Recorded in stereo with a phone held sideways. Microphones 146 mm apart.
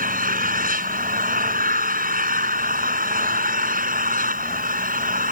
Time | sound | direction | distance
0.0 | an engine running | 75° right (ahead or behind) | ?